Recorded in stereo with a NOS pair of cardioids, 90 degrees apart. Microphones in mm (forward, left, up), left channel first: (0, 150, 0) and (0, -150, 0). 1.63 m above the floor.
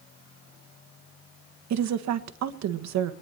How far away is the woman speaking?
About 1.6 m.